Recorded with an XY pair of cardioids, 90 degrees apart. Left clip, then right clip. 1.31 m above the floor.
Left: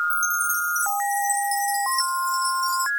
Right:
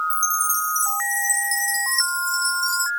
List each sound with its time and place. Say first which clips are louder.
0.1 s a chime: right 1 dB; 40° right